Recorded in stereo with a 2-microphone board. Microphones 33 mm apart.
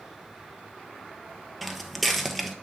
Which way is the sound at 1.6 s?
Centre (ahead or behind).